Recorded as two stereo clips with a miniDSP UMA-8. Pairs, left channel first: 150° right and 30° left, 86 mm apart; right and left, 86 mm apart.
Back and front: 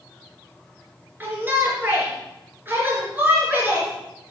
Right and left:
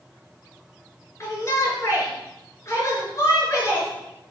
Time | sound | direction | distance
1.2 | a shout | 35° right | 4 m